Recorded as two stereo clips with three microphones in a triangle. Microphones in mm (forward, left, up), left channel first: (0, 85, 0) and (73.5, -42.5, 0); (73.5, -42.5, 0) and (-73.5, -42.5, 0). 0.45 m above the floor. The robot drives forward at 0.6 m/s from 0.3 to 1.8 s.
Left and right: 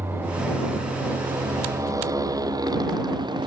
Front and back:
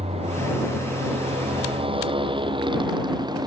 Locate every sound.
0.0 s a motorcycle: 135° right; by 3.5 s 120° right